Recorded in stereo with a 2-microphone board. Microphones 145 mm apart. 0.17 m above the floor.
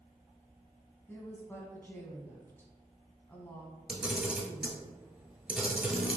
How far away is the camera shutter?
About 1.2 m.